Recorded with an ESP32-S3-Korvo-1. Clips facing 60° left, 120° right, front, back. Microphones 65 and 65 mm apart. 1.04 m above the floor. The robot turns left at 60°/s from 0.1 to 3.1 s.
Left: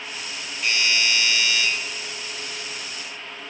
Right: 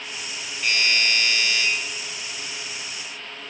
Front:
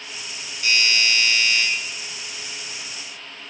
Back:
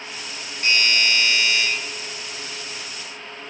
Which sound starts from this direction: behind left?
A doorbell, at 0.6 s.